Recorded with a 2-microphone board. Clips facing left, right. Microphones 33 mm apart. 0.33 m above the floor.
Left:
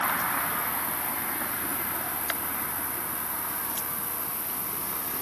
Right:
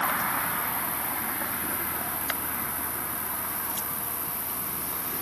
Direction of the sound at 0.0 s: 50° left (ahead or behind).